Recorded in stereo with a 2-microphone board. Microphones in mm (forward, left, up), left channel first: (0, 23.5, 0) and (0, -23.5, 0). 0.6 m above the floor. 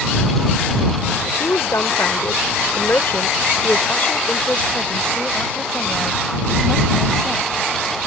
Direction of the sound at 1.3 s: 75° left (ahead or behind).